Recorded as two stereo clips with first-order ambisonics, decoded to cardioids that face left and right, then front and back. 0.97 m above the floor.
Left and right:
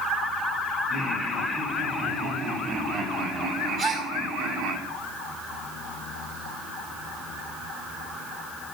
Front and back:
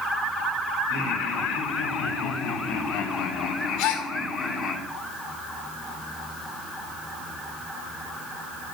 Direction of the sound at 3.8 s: 25° right.